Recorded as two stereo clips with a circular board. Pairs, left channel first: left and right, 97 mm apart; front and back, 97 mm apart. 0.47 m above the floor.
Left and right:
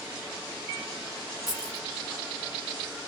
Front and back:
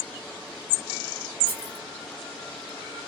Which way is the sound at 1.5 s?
140° left.